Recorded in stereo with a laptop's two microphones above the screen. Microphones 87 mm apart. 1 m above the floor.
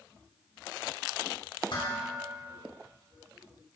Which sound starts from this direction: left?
Dishes clattering, at 1.7 s.